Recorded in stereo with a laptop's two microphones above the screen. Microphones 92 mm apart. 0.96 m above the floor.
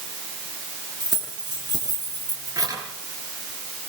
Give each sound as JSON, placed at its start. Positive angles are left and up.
{"t": 1.0, "sound": "keys jangling", "side_deg": -50, "distance_m": 9.5}